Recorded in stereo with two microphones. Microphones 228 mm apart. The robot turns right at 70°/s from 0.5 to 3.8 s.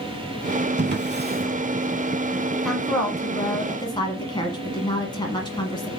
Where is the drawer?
50° right (ahead or behind), 0.5 m; by 1.5 s 35° right (ahead or behind), 0.5 m.